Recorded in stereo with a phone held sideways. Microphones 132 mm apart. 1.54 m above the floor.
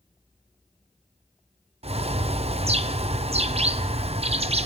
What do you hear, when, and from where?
1.8 s a bird: 55° right (ahead or behind), 0.5 m